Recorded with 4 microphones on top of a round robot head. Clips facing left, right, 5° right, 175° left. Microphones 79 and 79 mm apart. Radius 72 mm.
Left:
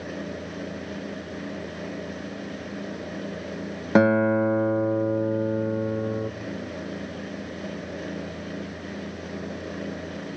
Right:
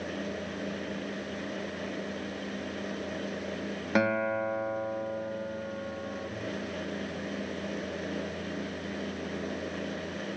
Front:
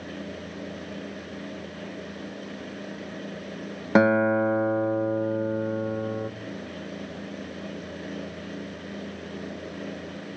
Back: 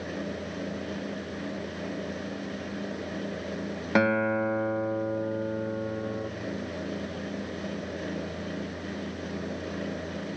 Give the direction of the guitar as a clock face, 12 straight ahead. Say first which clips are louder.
Left 9 dB, front 5 dB; 10 o'clock.